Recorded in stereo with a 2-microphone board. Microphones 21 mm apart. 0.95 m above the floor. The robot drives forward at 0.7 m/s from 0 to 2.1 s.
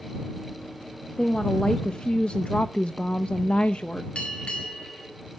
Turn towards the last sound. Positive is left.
turn(degrees=60)  # may be behind; listen again after turning